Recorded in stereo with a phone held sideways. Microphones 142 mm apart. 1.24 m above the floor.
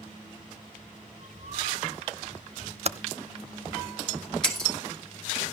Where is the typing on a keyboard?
45° right (ahead or behind), 0.6 m.